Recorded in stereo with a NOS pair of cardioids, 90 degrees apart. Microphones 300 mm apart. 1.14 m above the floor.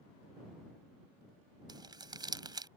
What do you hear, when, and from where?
1.7 s crumpling: 15° right